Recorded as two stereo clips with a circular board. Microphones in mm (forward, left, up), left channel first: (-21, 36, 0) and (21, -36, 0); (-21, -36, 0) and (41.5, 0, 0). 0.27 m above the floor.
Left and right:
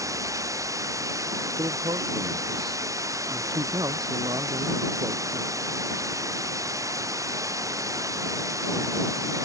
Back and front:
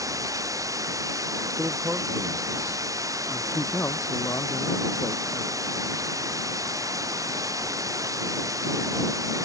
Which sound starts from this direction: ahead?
Running water, at 0.0 s.